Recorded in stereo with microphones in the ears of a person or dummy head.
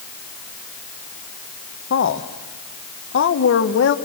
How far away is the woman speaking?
About 1.3 m.